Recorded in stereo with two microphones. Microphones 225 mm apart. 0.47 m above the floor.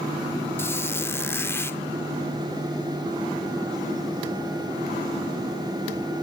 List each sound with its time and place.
0.6 s a squeak: 10° left (ahead or behind), 0.6 m